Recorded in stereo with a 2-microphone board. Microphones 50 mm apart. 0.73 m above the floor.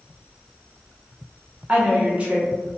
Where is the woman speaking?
25° right (ahead or behind), 0.8 m.